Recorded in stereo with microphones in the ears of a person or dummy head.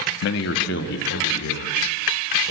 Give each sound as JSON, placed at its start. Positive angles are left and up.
{"t": 0.2, "sound": "a man speaking", "side_deg": 70, "distance_m": 2.0}